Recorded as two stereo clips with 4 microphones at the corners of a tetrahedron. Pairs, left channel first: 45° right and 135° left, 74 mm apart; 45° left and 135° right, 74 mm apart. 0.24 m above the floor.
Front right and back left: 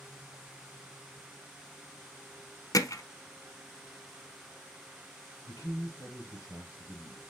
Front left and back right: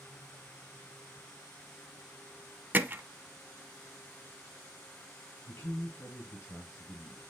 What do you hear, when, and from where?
2.7 s hammering: 75° right, 0.7 m
5.5 s a man speaking: straight ahead, 3 m